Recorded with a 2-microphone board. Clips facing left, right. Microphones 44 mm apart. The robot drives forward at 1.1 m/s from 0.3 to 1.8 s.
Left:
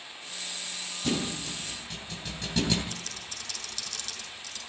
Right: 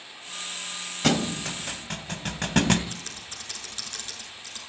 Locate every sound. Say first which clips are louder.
1.0 s a thud: right 6 dB; 75° right (ahead or behind), 1.9 m; by 2.8 s 55° right (ahead or behind), 2 m
2.9 s typing on a keyboard: right 1 dB; 35° right (ahead or behind), 7 m